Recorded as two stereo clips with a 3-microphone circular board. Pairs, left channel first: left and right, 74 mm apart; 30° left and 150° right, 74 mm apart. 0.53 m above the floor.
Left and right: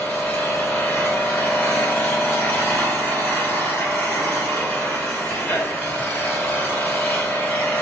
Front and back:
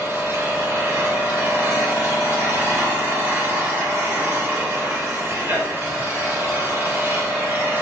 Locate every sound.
0.0 s an engine running: 155° left, 1.5 m